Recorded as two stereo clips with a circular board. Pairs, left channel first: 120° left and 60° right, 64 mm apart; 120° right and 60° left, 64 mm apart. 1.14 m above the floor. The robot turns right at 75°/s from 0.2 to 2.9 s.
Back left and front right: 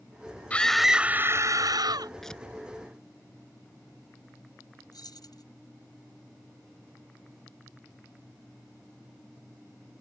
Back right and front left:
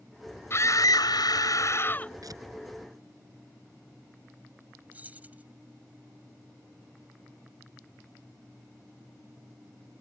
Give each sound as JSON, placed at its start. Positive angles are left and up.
{"t": 0.5, "sound": "a scream", "azimuth_deg": -170}
{"t": 2.2, "sound": "tearing paper", "azimuth_deg": 35}
{"t": 4.9, "sound": "keys jangling", "azimuth_deg": 125}